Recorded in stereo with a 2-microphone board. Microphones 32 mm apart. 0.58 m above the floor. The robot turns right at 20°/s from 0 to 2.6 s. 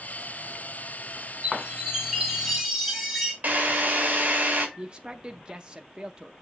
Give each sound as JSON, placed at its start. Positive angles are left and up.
{"t": 1.4, "sound": "a chime", "side_deg": -30, "distance_m": 3.0}
{"t": 3.4, "sound": "a drill", "side_deg": -45, "distance_m": 3.0}
{"t": 4.8, "sound": "a man speaking", "side_deg": -25, "distance_m": 0.6}